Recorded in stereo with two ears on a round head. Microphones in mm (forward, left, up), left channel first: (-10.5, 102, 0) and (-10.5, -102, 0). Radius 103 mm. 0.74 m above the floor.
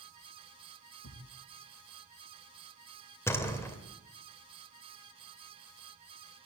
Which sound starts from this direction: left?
A thud, at 1.0 s.